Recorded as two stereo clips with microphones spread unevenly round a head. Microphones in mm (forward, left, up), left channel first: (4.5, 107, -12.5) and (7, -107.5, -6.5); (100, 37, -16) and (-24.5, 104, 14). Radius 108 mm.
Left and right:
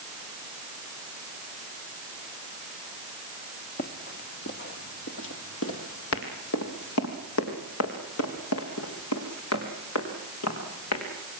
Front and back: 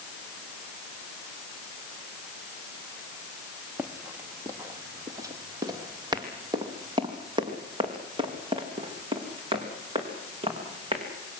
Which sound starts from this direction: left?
Running footsteps, at 3.8 s.